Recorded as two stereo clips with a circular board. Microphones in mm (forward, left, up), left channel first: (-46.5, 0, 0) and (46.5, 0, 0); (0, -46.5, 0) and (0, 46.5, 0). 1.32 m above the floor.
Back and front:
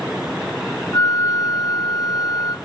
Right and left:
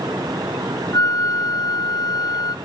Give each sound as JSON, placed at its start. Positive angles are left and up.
{"t": 0.9, "sound": "a flute", "azimuth_deg": -130, "distance_m": 0.7}